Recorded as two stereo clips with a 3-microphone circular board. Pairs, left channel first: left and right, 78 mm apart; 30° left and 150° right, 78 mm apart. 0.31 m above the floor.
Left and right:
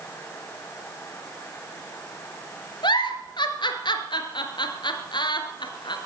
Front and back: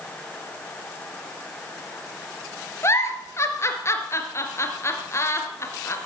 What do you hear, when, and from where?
2.8 s a giggle: 80° left, 1.7 m